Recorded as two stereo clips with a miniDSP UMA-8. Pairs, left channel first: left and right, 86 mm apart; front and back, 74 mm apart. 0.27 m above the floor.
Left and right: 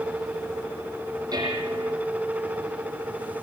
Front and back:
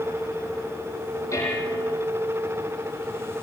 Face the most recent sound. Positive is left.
turn(degrees=-50)